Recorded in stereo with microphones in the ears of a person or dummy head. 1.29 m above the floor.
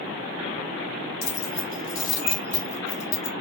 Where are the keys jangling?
65° left (ahead or behind), 0.7 m; by 3.3 s 35° left (ahead or behind), 2 m.